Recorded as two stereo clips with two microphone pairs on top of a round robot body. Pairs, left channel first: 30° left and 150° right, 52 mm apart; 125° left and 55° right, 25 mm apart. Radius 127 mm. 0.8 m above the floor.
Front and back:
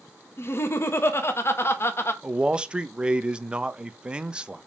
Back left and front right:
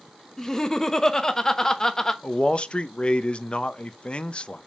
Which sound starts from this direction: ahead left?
Laughter, at 0.4 s.